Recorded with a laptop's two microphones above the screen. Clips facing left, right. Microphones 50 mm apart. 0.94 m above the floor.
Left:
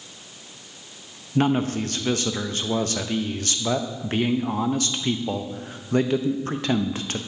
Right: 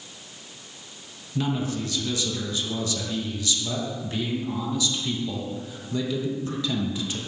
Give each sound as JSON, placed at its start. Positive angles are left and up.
{"t": 1.4, "sound": "a man speaking", "side_deg": 50, "distance_m": 0.6}